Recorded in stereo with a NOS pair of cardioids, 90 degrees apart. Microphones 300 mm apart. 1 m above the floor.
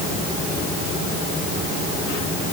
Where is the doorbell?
No doorbell in this recording.